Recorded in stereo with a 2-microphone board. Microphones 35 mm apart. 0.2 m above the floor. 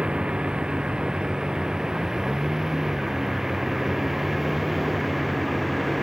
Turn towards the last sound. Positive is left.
turn(degrees=0)  # may be behind; listen again after turning